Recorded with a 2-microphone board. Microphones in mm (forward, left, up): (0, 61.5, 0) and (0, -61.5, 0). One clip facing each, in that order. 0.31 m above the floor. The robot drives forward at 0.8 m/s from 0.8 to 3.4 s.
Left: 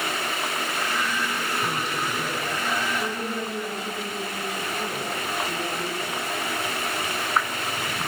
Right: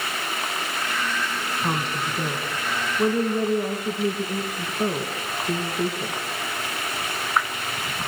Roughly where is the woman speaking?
Right.